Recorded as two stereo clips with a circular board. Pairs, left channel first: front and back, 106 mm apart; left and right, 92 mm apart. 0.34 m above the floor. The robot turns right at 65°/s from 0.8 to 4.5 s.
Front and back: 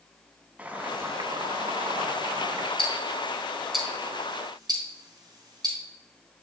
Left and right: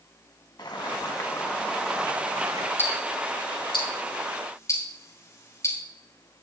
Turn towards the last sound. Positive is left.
turn(degrees=140)